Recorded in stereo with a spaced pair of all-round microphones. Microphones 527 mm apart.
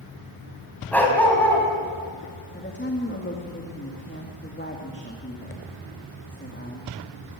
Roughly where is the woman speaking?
Centre.